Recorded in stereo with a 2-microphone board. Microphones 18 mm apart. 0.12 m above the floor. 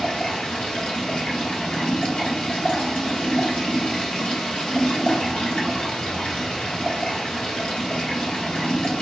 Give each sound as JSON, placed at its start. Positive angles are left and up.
{"t": 0.0, "sound": "running water", "side_deg": 50, "distance_m": 1.3}